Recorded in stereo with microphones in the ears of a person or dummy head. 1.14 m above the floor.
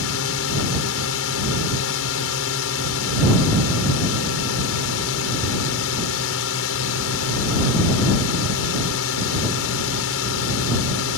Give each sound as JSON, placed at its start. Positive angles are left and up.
{"t": 0.0, "sound": "a drone", "side_deg": 65}